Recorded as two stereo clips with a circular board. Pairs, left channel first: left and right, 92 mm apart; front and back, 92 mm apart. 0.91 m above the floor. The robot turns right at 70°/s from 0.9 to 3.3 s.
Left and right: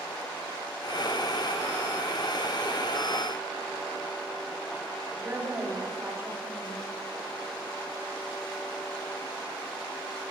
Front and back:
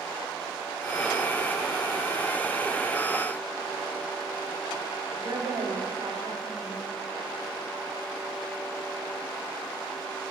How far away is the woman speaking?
About 2 m.